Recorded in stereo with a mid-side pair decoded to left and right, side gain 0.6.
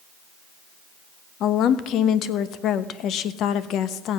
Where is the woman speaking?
60° left, 1.0 m.